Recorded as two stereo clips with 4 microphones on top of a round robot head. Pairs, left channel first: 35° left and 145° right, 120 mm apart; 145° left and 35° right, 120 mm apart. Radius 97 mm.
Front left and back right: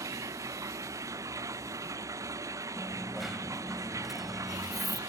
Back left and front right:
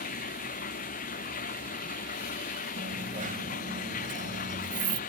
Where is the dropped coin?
55° right.